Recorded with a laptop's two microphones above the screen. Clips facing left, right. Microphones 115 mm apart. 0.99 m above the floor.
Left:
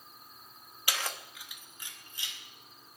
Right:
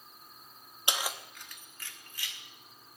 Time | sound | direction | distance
0.9 | keys jangling | 25° right (ahead or behind) | 0.6 m